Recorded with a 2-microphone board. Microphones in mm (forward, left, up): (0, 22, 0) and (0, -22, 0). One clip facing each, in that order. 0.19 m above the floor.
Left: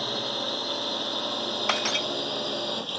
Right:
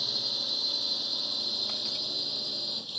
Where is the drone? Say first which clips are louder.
Left 5 dB; 50° left (ahead or behind); by 3.0 s 55° left (ahead or behind).